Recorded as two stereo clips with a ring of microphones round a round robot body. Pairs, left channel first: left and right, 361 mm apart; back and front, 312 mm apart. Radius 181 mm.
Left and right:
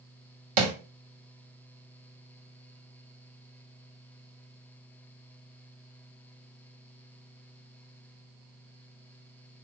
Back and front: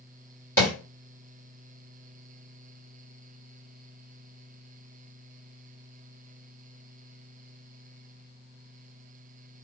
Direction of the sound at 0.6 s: 95° right.